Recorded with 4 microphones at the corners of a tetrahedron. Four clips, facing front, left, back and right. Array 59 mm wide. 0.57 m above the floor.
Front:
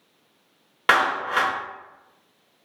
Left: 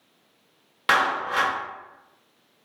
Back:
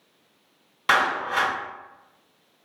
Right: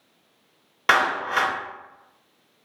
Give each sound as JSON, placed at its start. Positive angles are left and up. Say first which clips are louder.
{"t": 0.9, "sound": "a clap", "louder": "right 1 dB, front 2 dB", "azimuth_deg": -20, "distance_m": 1.2}